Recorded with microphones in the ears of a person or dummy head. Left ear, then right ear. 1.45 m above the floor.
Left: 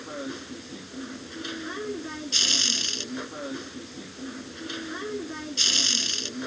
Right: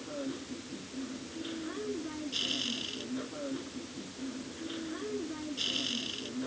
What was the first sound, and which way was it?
A machine running, 60° left (ahead or behind).